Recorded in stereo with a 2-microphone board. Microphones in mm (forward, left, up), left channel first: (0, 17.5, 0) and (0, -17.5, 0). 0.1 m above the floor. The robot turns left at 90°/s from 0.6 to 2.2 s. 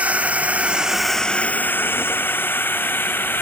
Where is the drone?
40° right (ahead or behind); by 3.4 s 70° left (ahead or behind).